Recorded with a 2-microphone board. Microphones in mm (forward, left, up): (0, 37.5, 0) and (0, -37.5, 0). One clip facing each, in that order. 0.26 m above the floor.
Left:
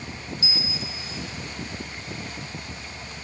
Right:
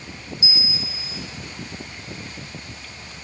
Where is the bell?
15° right (ahead or behind), 2.5 m.